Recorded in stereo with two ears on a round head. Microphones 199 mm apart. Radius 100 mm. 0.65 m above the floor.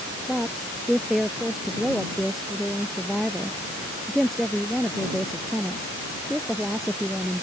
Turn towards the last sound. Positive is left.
turn(degrees=0)  # may be behind; listen again after turning